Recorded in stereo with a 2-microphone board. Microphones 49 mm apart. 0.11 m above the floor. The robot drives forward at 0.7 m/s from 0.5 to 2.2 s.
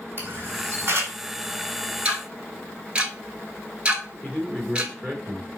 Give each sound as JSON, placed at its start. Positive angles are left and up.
{"t": 0.2, "sound": "a camera shutter", "side_deg": -45, "distance_m": 1.7}
{"t": 2.0, "sound": "ticking", "side_deg": -25, "distance_m": 0.8}
{"t": 4.2, "sound": "a man speaking", "side_deg": -25, "distance_m": 2.5}